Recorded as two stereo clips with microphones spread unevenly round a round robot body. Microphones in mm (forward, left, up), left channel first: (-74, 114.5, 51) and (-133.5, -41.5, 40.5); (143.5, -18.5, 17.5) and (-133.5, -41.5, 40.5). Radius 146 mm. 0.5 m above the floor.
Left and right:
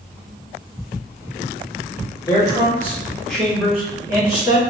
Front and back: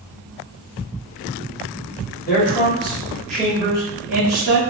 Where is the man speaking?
10° left, 1.4 m; by 4.6 s 145° right, 1.4 m.